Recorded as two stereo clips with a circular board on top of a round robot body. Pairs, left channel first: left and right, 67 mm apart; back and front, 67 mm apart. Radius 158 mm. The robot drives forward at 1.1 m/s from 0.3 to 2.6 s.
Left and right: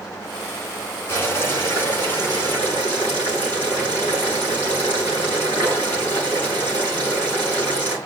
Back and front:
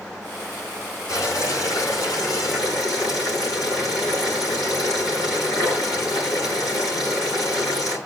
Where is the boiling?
145° left, 7 m; by 8.0 s 150° left, 8.5 m.